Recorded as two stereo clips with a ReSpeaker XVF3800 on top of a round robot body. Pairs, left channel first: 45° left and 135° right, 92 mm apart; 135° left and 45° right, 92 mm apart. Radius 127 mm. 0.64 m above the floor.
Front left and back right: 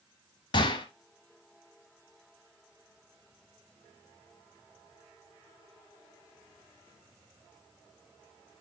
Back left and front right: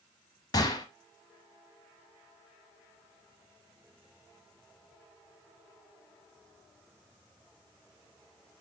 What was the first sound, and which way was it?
A gunshot, 85° left.